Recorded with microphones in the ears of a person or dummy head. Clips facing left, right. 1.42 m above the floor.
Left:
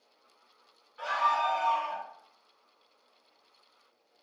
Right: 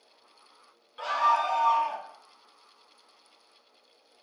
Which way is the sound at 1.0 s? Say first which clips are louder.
Right 3 dB; 45° right (ahead or behind).